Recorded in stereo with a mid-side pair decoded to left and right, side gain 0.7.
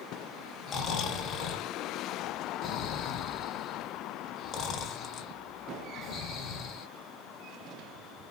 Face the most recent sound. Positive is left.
turn(degrees=40)